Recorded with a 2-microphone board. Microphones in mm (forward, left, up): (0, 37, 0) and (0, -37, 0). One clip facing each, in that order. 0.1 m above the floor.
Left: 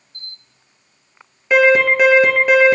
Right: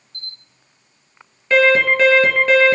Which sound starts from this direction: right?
A camera shutter, at 0.1 s.